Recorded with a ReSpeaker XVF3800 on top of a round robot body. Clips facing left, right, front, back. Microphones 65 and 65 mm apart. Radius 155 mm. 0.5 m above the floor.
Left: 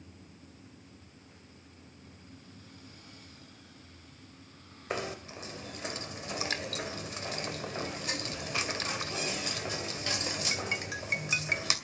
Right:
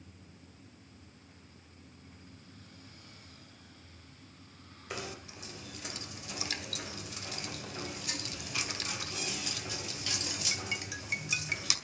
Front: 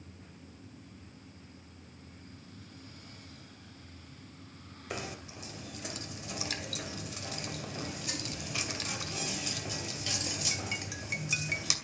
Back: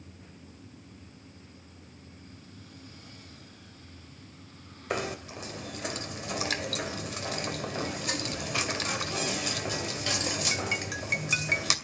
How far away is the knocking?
About 2.5 m.